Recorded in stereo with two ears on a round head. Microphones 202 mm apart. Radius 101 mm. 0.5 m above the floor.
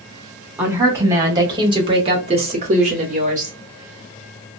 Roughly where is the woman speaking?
Centre.